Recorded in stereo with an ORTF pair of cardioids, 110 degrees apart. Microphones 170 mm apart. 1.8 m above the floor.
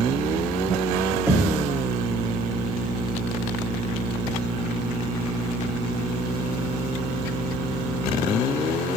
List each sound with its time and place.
1.3 s knocking: 15° right, 1.7 m